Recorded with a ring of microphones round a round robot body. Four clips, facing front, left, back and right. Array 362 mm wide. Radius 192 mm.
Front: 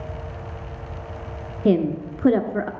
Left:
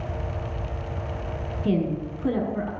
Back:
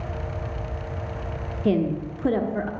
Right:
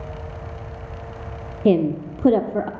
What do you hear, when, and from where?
1.6 s a woman speaking: 65° right, 1.0 m